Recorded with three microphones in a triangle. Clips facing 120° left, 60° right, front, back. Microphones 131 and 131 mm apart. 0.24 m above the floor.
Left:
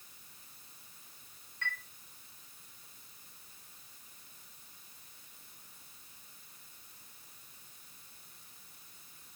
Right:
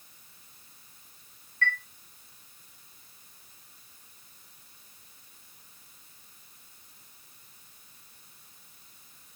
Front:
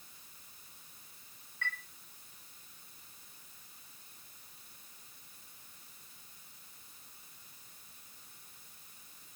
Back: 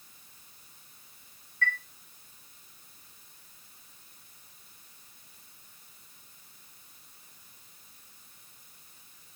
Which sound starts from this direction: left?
A chime, at 1.6 s.